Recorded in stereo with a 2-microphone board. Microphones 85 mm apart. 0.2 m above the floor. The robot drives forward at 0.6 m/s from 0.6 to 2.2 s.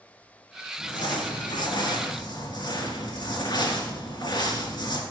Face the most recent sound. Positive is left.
turn(degrees=60)  # may be behind; listen again after turning